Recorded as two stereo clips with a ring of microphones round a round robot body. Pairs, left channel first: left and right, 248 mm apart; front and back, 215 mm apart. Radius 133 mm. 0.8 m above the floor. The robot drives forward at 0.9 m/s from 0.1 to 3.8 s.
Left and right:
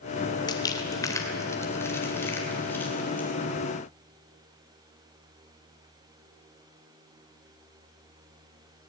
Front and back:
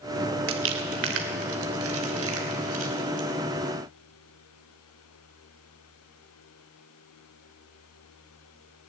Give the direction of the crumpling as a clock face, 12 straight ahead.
7 o'clock.